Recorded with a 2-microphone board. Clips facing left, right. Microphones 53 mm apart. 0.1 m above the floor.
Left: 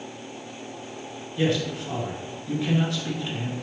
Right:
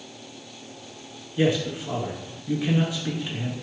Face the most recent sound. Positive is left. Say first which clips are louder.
# right 2 dB
turn(degrees=-15)  # may be behind; listen again after turning